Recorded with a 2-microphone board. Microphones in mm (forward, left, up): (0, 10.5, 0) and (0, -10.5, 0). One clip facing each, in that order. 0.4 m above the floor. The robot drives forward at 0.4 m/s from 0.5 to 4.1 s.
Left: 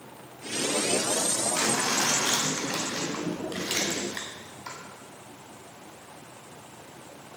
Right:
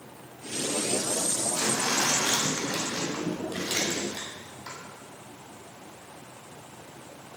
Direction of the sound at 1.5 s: 50° left (ahead or behind).